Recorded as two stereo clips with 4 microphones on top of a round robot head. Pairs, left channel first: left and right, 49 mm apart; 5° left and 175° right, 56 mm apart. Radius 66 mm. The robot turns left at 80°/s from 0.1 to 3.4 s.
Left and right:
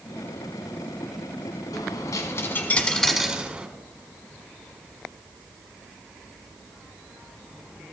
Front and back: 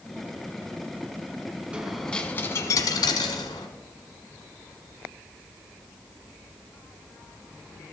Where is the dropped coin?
110° left, 1.3 m; by 3.7 s 25° right, 1.3 m.